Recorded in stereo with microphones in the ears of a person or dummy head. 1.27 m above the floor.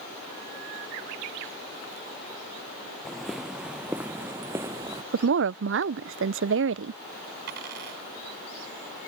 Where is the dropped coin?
55° right (ahead or behind).